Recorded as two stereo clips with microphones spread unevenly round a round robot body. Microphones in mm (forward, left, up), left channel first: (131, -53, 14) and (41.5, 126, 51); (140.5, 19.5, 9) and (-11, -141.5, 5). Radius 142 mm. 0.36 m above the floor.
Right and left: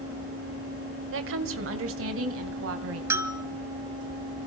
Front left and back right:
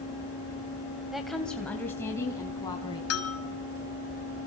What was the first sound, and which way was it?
A woman speaking, 140° left.